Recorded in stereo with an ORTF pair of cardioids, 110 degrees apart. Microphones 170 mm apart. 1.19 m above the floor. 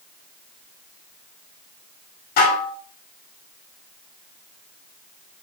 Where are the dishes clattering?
65° left, 2 m.